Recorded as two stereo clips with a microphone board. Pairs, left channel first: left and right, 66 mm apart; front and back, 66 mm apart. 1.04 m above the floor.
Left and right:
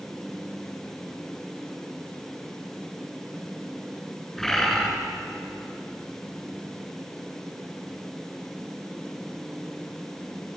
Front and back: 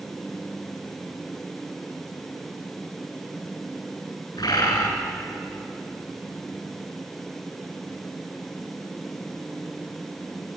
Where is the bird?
10° left, 9 m.